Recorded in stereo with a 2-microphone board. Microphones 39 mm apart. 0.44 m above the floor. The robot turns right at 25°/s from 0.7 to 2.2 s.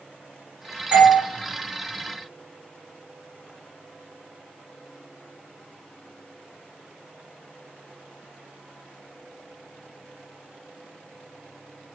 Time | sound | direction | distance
0.9 | a doorbell | 35° right (ahead or behind) | 1.8 m